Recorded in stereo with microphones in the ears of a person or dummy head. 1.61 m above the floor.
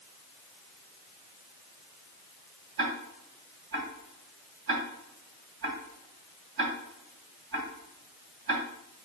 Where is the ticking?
50° right (ahead or behind), 2 m.